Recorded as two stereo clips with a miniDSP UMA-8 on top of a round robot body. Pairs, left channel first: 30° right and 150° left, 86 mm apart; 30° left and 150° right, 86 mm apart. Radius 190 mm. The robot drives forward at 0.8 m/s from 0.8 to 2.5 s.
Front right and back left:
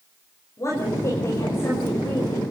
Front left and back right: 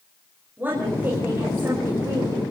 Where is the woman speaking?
80° right, 6 m; by 2.4 s 95° right, 6 m.